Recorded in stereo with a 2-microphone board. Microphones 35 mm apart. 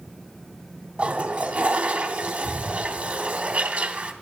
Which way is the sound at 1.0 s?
35° right (ahead or behind).